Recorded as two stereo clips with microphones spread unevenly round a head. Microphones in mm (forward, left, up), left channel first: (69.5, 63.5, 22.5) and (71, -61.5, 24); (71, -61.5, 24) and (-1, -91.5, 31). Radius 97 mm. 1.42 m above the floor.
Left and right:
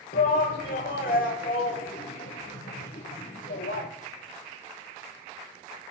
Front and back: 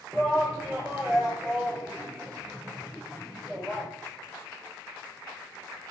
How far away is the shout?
About 1.3 m.